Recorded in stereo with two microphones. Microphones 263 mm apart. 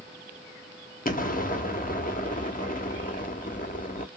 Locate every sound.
1.1 s an explosion: 30° left (ahead or behind), 0.9 m